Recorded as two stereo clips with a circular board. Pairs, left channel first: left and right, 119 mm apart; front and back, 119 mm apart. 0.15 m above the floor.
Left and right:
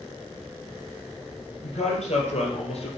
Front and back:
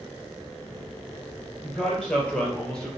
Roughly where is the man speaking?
Left.